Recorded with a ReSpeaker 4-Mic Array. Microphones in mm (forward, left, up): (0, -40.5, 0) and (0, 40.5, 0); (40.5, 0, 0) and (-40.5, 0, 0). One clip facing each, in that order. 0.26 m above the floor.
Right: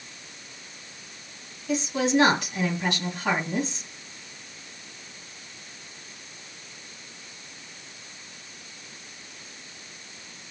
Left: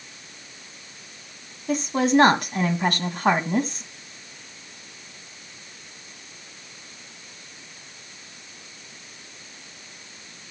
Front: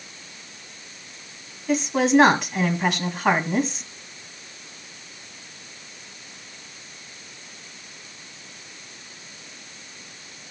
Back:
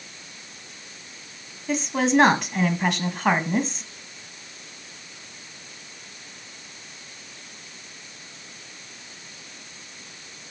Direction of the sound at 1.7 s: 90° left.